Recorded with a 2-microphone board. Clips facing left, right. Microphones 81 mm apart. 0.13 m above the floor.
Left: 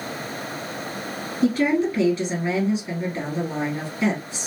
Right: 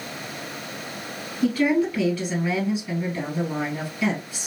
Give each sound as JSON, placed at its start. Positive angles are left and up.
{"t": 1.4, "sound": "a woman speaking", "side_deg": 15, "distance_m": 1.6}